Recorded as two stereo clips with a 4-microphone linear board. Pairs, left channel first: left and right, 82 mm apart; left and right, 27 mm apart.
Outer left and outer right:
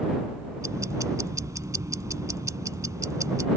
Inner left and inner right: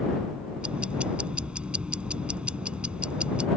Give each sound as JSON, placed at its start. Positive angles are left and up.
{"t": 0.6, "sound": "ticking", "side_deg": -45}